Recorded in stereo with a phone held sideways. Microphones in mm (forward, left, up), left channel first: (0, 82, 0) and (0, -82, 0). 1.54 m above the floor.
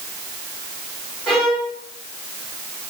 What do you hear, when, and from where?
1.3 s a violin: 5° left (ahead or behind), 2.5 m